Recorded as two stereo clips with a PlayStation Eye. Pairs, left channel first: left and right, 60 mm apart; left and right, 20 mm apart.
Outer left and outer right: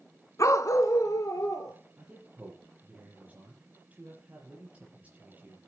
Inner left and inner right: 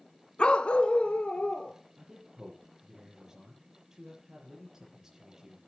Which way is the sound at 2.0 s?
25° right (ahead or behind).